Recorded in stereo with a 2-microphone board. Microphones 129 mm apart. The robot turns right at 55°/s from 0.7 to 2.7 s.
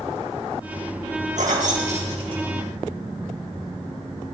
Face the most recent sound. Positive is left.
turn(degrees=-20)  # may be behind; listen again after turning